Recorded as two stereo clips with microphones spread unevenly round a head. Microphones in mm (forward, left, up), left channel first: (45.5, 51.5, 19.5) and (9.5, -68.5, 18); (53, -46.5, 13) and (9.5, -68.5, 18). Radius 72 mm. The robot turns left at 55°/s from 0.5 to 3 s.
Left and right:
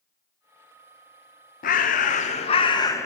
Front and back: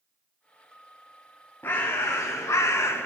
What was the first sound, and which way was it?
A bird, 80° left.